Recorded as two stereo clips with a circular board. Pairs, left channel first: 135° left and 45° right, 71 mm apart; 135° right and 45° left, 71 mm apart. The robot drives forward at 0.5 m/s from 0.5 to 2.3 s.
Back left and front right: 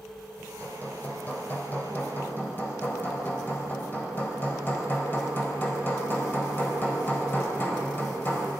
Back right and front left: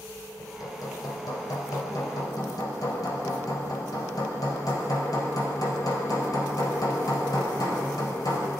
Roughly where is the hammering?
Behind.